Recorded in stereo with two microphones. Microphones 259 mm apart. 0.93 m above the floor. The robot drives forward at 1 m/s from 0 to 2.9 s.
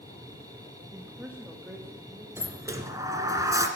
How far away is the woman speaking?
About 1.4 m.